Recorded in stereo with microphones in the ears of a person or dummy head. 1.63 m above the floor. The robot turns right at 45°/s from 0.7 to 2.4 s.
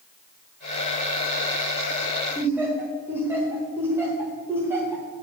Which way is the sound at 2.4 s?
15° right (ahead or behind).